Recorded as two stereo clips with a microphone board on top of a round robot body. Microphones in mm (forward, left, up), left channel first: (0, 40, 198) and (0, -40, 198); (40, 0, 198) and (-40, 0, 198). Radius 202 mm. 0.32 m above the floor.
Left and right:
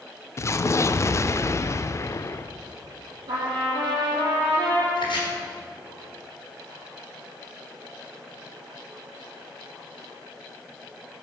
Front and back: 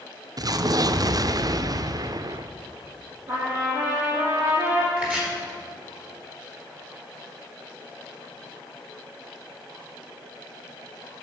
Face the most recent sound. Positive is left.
turn(degrees=105)